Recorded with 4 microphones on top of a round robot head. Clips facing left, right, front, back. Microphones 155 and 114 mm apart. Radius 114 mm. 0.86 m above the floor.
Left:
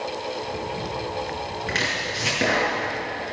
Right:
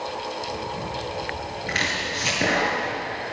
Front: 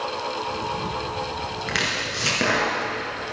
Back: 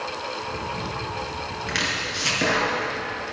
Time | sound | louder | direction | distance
1.7 | chopping | left 1 dB, front 1 dB | 35° left | 5 m